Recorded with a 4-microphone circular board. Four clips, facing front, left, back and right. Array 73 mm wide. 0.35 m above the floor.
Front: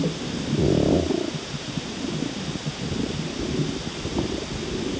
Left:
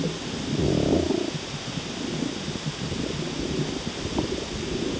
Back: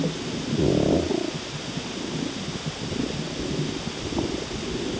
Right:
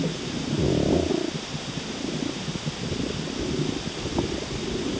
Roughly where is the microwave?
No microwave in this recording.